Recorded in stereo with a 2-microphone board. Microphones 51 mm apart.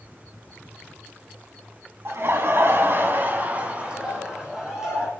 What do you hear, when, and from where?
2.0 s laughter: 55° right (ahead or behind), 1.8 m; by 5.1 s 10° right (ahead or behind), 3 m